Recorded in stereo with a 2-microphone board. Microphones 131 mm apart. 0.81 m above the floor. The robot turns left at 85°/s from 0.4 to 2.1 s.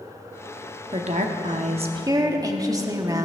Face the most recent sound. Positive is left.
turn(degrees=-150)